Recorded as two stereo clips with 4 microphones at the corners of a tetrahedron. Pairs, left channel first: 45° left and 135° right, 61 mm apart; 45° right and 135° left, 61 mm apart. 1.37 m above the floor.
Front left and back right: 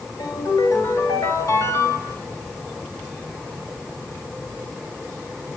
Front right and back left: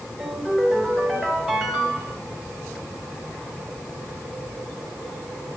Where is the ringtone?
50° left, 4 m.